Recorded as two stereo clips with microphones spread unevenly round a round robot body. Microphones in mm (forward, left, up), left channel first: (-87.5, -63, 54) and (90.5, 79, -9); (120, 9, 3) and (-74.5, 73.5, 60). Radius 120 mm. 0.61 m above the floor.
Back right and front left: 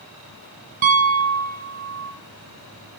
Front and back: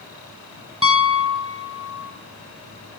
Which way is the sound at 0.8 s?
95° left.